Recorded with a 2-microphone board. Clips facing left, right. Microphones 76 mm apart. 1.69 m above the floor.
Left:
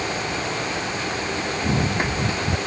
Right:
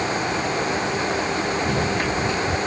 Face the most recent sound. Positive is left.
turn(degrees=20)  # may be behind; listen again after turning